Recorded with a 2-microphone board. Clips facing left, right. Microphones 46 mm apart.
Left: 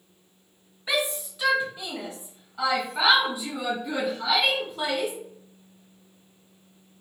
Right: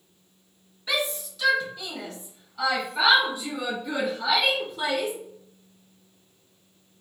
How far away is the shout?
About 1.3 m.